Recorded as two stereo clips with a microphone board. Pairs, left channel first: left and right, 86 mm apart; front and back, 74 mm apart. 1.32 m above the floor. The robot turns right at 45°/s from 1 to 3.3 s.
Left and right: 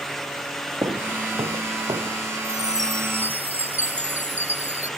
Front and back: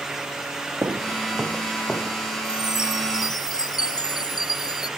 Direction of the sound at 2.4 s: 60° right.